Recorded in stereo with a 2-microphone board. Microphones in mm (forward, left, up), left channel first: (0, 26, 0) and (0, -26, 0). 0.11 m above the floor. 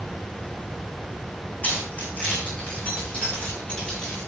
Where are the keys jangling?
35° left (ahead or behind), 5.5 m; by 4.2 s 25° left (ahead or behind), 8 m.